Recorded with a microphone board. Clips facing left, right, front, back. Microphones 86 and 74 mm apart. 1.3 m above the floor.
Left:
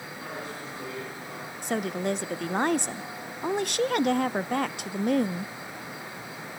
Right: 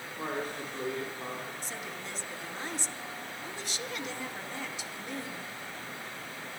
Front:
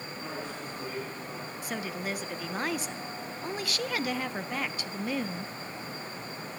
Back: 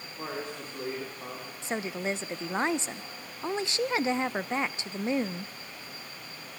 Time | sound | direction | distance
0.2 | a man speaking | 140° right | 4.5 m
1.6 | a woman speaking | 115° left | 0.6 m